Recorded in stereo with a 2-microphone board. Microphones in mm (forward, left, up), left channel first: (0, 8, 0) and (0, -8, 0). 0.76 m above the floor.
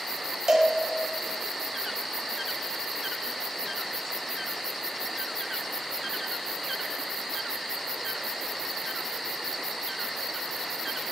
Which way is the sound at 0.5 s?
40° right (ahead or behind).